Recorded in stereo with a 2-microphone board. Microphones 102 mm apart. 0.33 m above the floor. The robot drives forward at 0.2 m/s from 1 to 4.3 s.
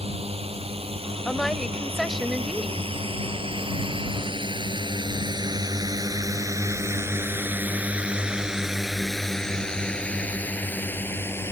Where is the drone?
80° right; by 11.5 s 25° left (ahead or behind).